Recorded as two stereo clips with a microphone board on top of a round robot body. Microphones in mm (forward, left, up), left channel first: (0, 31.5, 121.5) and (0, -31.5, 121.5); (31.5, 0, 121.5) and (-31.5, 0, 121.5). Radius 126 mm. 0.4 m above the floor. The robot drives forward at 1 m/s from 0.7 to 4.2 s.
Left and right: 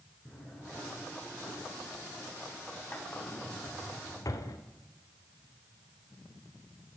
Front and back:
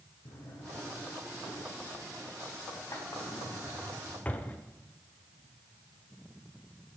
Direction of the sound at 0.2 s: 10° left.